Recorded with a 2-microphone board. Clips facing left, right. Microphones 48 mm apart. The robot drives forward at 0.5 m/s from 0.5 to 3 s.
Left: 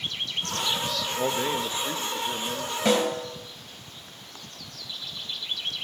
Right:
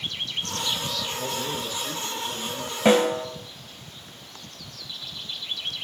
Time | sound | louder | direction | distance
1.2 | a man speaking | left 4 dB | 40° left (ahead or behind) | 1.0 m
2.9 | a snare drum | right 5 dB | 25° right (ahead or behind) | 1.9 m